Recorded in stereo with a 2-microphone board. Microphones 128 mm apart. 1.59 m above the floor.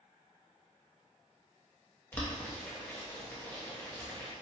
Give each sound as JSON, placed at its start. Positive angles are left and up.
{"t": 2.1, "sound": "boiling", "side_deg": 15, "distance_m": 0.9}